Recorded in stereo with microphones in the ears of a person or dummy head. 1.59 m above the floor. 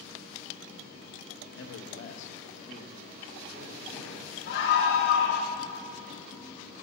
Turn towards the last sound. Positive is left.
turn(degrees=65)  # may be behind; listen again after turning